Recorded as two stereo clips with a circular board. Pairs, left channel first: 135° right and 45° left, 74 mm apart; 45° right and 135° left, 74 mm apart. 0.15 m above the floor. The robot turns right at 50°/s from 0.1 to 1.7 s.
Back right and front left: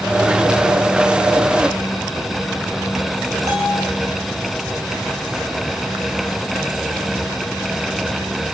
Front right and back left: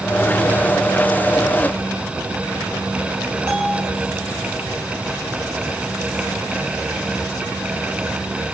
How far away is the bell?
About 9.5 m.